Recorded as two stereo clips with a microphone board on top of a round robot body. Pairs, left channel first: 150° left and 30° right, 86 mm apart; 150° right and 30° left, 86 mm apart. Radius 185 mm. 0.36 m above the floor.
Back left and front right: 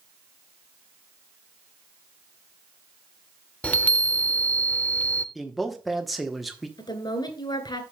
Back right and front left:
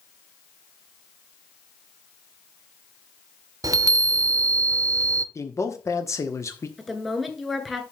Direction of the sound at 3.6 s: 80° left.